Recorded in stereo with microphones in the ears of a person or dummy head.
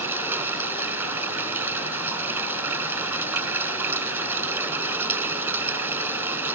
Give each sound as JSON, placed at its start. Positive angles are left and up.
{"t": 0.0, "sound": "running water", "side_deg": -10}